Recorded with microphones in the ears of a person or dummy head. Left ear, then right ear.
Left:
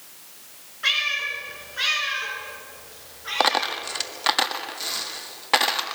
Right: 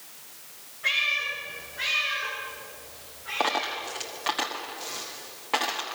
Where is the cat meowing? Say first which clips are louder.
Left 2 dB; 65° left (ahead or behind), 6 m; by 3.8 s 80° left, 7 m.